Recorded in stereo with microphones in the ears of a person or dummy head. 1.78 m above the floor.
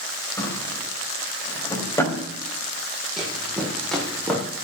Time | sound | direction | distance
0.4 | a drawer | 15° left (ahead or behind) | 3.5 m
3.2 | running footsteps | centre (ahead or behind) | 6 m